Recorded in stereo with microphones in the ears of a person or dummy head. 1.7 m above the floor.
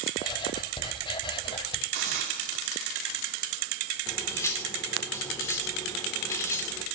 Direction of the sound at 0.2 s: 25° left (ahead or behind).